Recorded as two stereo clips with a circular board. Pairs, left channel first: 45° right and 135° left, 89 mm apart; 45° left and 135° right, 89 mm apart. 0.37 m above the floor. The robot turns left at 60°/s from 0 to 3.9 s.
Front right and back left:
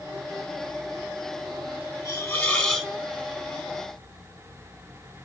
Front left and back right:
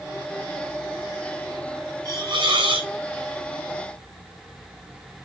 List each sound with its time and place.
2.0 s a hiss: 85° right, 1.3 m; by 2.9 s 140° right, 1.3 m